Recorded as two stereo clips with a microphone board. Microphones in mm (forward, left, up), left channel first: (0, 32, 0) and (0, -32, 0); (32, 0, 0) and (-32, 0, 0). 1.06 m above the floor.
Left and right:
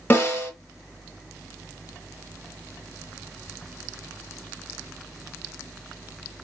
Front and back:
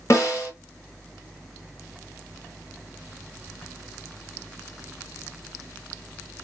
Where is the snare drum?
35° left, 2 m.